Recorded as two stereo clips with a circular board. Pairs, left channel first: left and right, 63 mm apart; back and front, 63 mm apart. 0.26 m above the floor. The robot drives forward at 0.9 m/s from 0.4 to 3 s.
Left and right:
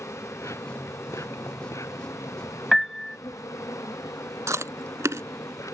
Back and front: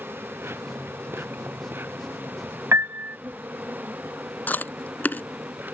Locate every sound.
0.0 s an insect: 50° left; by 5.7 s 60° left
2.7 s a piano: 5° left
4.5 s chewing: 120° right